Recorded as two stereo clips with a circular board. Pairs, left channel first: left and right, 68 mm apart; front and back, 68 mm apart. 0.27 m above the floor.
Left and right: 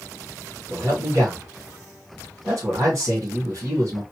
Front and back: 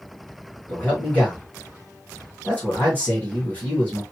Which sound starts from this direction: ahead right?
A man speaking, at 0.7 s.